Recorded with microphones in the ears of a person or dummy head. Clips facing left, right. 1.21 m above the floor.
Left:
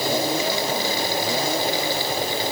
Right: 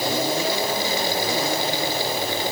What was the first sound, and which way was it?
Only background noise.